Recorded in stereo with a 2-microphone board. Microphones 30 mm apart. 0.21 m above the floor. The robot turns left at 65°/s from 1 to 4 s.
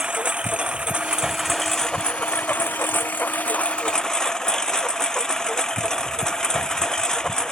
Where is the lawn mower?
145° right; by 7.5 s 20° left.